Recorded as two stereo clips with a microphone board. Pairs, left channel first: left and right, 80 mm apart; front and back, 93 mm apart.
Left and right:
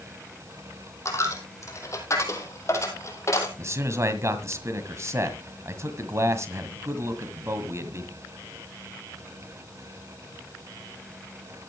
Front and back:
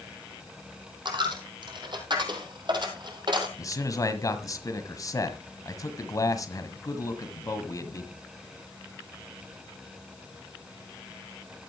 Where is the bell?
I don't hear a bell.